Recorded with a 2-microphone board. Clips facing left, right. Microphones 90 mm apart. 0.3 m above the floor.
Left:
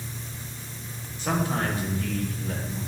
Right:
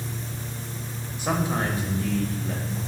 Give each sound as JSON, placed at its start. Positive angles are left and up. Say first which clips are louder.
{"t": 1.2, "sound": "a man speaking", "louder": "right 1 dB", "side_deg": -10, "distance_m": 0.9}